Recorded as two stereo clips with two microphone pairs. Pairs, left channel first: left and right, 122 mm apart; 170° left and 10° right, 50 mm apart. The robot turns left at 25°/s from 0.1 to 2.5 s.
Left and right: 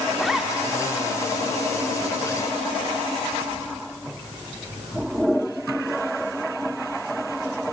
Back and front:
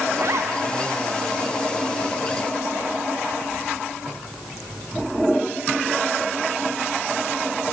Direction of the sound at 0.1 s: Straight ahead.